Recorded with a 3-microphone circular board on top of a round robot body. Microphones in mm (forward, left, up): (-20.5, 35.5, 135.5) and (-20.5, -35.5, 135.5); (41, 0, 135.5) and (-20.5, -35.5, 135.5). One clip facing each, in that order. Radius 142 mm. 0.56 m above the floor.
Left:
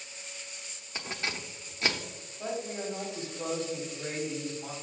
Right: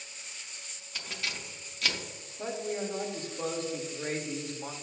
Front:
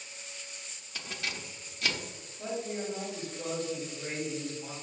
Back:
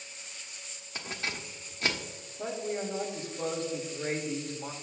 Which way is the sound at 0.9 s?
150° left.